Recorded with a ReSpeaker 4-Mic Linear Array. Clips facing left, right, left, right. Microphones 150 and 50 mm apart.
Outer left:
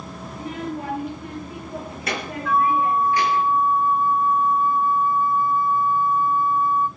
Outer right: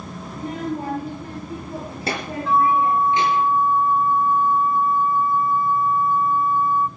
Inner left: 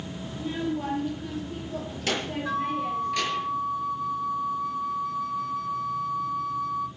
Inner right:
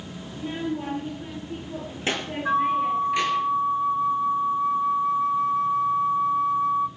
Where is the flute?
30° right (ahead or behind), 0.7 m.